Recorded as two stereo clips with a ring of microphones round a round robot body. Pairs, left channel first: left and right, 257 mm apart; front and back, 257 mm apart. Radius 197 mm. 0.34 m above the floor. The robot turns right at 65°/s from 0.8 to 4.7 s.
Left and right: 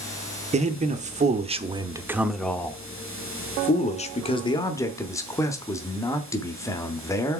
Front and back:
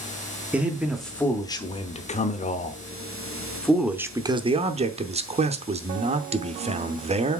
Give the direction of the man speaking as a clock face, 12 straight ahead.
3 o'clock.